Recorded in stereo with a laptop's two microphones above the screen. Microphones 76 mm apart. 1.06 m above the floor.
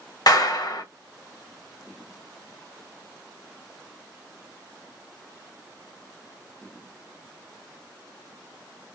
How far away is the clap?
About 1.2 m.